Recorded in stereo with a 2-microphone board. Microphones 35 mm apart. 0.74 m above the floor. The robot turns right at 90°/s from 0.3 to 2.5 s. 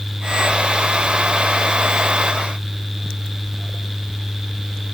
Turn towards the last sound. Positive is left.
No sound to turn to.